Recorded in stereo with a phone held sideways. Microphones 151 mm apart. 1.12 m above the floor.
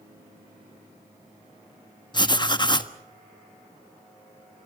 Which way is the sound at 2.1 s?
30° left (ahead or behind).